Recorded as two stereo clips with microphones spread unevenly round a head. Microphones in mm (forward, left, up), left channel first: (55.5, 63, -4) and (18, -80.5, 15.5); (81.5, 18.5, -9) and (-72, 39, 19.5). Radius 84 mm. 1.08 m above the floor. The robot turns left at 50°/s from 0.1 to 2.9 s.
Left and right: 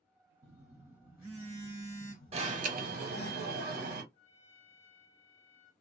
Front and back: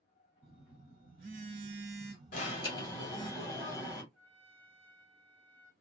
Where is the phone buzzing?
145° right, 1.6 m; by 3.3 s 95° left, 1.6 m.